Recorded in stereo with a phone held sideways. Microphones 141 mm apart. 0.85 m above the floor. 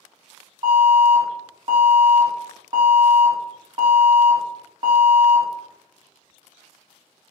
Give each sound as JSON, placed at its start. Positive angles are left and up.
{"t": 0.6, "sound": "an alarm", "side_deg": -30, "distance_m": 1.4}